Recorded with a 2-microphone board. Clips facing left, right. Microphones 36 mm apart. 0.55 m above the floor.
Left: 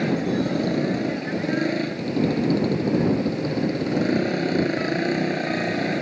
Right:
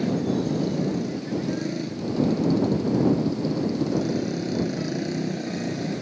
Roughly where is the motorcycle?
Left.